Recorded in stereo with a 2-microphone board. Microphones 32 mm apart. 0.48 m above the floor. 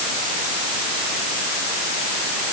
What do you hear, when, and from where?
Only background noise.